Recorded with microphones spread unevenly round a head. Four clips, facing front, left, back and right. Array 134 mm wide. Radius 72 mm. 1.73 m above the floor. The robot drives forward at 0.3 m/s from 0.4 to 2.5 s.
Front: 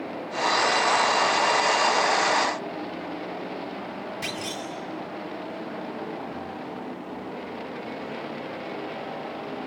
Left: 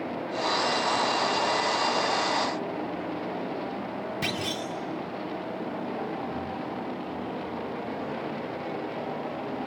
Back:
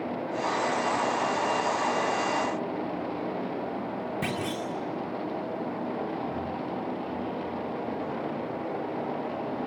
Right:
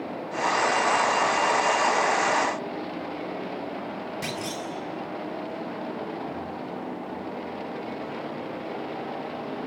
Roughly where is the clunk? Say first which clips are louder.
Left 1 dB, back 2 dB; behind.